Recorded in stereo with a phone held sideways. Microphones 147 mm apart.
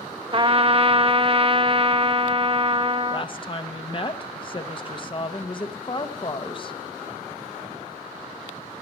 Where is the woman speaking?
35° left (ahead or behind), 0.9 m.